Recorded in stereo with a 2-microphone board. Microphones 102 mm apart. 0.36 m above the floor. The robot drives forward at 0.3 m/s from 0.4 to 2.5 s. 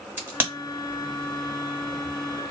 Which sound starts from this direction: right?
A crack, at 0.2 s.